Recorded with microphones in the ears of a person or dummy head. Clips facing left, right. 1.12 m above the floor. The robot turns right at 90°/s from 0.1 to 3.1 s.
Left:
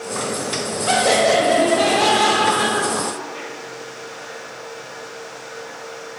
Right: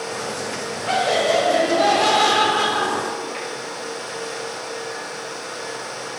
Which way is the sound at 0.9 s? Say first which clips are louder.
Left 3 dB; 55° left.